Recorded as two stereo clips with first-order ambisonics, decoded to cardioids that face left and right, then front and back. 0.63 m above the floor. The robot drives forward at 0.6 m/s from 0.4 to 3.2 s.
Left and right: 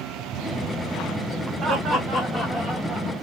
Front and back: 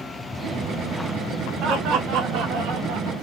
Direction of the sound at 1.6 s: 155° right.